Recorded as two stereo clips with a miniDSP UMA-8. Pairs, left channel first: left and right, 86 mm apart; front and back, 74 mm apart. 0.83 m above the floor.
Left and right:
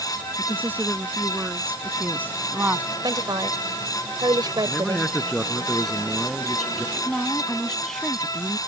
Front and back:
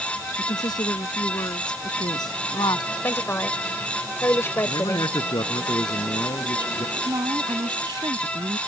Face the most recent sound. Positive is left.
turn(degrees=175)